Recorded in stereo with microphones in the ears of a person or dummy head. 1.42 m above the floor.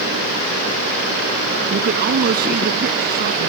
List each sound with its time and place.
1.7 s a man speaking: 50° right (ahead or behind); by 3.5 s 55° right (ahead or behind)